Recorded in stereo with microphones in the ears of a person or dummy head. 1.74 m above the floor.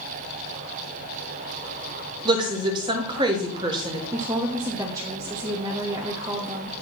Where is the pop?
No pop in this recording.